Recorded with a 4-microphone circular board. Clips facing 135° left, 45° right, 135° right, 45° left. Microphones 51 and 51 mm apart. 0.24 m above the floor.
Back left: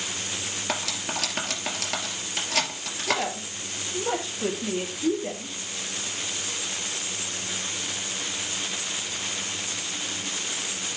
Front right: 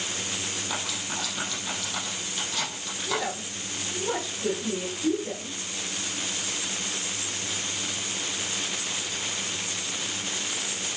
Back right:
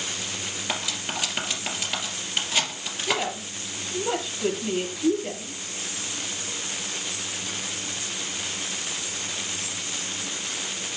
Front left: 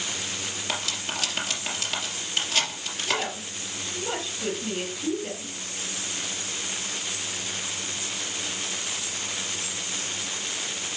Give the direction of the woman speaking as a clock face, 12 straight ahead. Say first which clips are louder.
Back left 3 dB, back right 2 dB; 7 o'clock.